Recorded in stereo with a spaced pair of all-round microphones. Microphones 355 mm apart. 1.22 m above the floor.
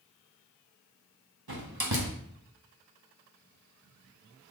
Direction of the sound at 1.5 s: 85° right.